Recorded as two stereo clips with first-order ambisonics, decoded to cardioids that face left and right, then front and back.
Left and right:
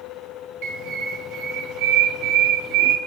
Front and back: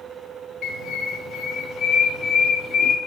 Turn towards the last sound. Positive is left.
turn(degrees=-60)